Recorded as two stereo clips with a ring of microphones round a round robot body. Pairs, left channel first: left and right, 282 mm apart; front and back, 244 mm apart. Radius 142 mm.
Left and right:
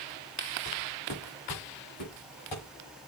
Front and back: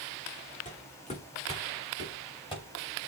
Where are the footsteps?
60° left, 4 m; by 2.6 s 70° left, 5.5 m.